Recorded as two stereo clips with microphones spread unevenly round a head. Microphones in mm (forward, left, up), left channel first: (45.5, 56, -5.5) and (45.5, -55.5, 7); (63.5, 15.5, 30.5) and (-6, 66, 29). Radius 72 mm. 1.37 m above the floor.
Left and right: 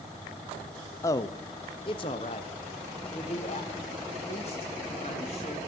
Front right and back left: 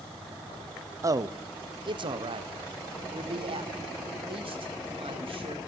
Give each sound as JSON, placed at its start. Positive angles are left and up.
{"t": 1.0, "sound": "a man speaking", "azimuth_deg": 130, "distance_m": 0.5}